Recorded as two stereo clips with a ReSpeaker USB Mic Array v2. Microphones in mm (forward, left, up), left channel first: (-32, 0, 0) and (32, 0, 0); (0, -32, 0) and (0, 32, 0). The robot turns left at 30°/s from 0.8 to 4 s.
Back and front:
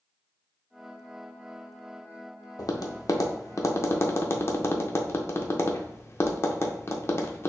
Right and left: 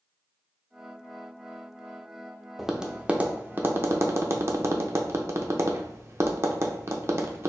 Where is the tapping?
175° left, 0.5 m; by 7.5 s 135° left, 0.5 m.